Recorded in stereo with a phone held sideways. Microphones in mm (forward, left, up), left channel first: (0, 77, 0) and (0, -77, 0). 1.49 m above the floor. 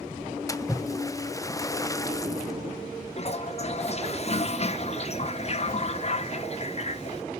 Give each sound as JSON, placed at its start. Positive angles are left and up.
{"t": 0.5, "sound": "a splash", "side_deg": 20, "distance_m": 0.5}
{"t": 3.2, "sound": "a toilet flushing", "side_deg": 45, "distance_m": 0.7}